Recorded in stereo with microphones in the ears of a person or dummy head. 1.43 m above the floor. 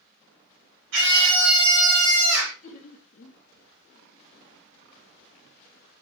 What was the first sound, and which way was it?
A scream, 70° right (ahead or behind).